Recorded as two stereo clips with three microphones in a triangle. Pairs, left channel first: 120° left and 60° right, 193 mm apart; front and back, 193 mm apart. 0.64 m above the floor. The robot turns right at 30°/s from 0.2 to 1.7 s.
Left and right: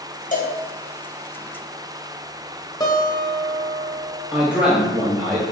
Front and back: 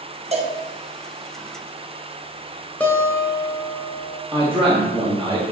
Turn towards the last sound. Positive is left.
turn(degrees=-140)